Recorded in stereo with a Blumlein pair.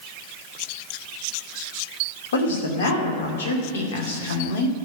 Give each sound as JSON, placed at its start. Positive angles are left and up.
{"t": 2.3, "sound": "a woman speaking", "azimuth_deg": 60, "distance_m": 2.5}